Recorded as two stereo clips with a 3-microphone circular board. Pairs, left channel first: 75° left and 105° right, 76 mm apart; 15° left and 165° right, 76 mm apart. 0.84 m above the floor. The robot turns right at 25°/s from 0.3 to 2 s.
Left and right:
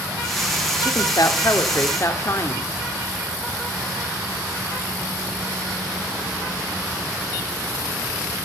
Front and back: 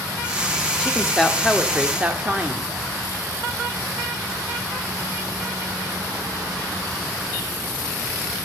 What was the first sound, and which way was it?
A woman speaking, 90° left.